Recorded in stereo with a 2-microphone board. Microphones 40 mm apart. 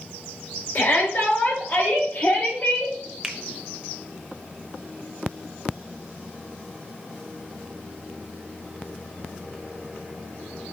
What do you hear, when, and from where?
0.8 s a shout: 55° left (ahead or behind), 6 m; by 2.9 s 50° left (ahead or behind), 8.5 m
3.2 s a finger snap: 5° right (ahead or behind), 1.1 m